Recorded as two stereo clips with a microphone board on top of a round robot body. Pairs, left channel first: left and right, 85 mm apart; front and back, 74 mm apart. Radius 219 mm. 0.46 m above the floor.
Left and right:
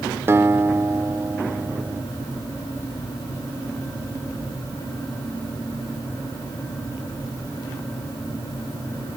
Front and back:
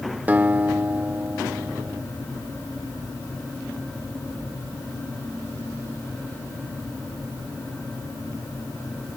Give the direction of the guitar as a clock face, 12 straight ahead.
4 o'clock.